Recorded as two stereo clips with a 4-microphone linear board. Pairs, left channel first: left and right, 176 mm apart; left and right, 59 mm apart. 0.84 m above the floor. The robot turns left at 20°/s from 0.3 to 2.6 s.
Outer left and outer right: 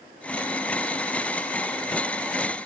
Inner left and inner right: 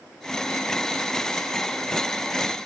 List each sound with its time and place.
Only background noise.